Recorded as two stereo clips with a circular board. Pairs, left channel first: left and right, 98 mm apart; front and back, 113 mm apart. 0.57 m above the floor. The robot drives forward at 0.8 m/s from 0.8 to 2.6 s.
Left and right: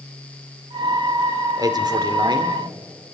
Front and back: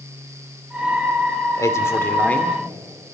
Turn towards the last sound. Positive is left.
turn(degrees=-80)